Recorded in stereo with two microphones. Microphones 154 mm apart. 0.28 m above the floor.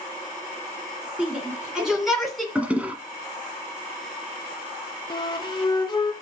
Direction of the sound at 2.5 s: 10° right (ahead or behind).